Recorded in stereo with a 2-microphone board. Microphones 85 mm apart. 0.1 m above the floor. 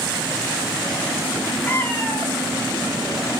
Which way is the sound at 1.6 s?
20° left (ahead or behind).